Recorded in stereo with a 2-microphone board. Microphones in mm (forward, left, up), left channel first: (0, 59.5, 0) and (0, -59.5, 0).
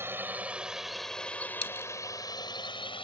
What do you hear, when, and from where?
0.0 s a drone: 20° right (ahead or behind); by 3.0 s 45° left (ahead or behind)
1.6 s a dropped coin: 50° left (ahead or behind)